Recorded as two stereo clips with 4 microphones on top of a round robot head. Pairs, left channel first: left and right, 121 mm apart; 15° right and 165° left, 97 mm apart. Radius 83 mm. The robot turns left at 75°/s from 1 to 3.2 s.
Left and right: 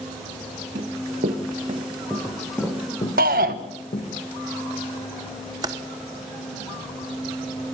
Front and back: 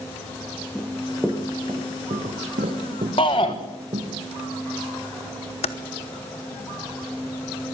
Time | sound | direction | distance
0.8 | running footsteps | 95° right | 4.5 m
3.2 | a shout | 75° right | 1.2 m
5.6 | typing on a keyboard | 25° right | 0.9 m